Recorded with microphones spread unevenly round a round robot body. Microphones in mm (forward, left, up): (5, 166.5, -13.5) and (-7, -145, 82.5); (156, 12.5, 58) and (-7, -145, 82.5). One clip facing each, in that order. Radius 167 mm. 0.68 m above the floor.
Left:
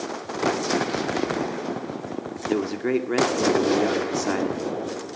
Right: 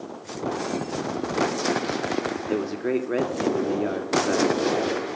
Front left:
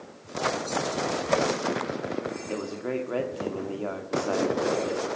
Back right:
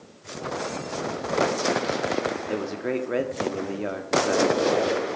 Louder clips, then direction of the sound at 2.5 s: Left 3 dB, back right 2 dB; 150° left.